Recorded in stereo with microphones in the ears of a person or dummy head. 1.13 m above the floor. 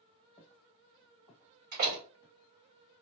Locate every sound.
0.4 s footsteps: 30° left (ahead or behind), 1.6 m; by 2.4 s 55° left (ahead or behind), 1.9 m
1.7 s a door slam: 45° right (ahead or behind), 2 m